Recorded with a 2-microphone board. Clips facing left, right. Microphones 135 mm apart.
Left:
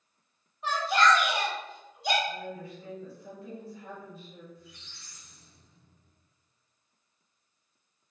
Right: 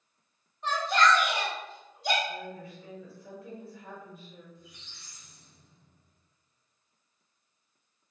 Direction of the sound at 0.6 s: 5° left (ahead or behind).